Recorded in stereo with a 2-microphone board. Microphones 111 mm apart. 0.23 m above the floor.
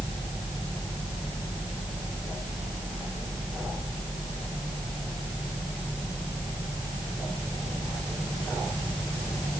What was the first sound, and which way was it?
Only background noise.